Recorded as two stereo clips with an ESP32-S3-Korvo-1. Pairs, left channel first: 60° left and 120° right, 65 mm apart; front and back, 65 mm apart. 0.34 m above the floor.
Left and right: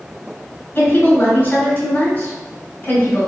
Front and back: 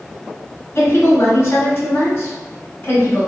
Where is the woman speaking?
15° left, 1.1 m.